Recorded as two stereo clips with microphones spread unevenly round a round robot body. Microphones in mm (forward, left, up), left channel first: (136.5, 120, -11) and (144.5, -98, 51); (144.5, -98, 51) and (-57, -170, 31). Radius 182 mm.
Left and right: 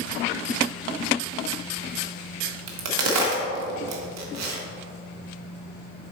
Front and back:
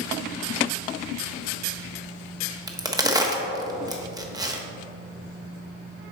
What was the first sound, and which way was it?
A crack, 85° right.